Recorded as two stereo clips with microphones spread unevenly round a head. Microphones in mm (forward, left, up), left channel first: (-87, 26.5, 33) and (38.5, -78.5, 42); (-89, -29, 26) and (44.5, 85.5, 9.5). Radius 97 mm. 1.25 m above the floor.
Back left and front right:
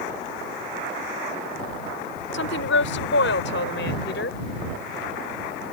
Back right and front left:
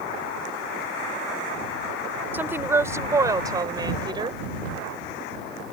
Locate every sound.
2.3 s a woman speaking: 120° left; by 4.4 s 105° left